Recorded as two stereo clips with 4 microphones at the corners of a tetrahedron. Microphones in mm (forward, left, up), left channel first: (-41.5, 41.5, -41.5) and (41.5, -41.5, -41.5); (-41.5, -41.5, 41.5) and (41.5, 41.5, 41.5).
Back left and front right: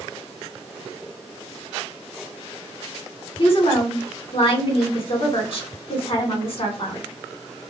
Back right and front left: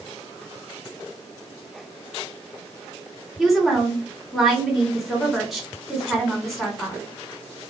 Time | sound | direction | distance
3.4 | a woman speaking | 135° left | 1.0 m